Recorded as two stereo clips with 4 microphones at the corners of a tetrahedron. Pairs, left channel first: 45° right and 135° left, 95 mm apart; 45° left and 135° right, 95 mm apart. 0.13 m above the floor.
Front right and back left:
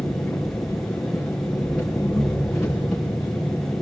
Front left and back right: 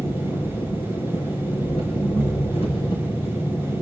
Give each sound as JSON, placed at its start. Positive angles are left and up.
{"t": 0.0, "sound": "an engine running", "azimuth_deg": 45, "distance_m": 5.5}